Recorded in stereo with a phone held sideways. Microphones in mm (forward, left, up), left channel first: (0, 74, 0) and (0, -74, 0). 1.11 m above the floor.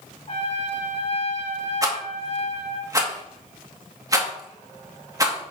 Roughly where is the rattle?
Right.